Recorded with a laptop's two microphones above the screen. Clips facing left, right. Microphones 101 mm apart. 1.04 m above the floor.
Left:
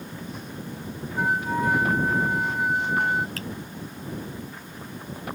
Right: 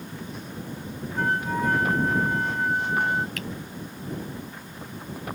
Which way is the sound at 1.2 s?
10° left (ahead or behind).